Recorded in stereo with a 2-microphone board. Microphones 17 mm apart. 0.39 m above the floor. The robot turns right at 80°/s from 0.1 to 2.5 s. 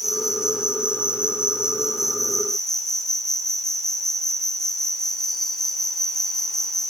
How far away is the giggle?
No giggle in this recording.